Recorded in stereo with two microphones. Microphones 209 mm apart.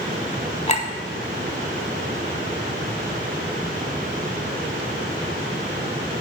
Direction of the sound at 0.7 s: 35° left (ahead or behind).